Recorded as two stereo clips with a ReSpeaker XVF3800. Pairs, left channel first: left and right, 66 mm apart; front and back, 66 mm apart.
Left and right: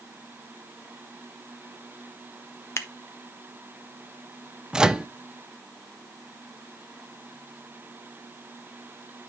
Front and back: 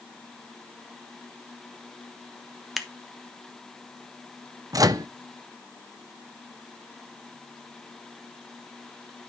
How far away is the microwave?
About 0.6 m.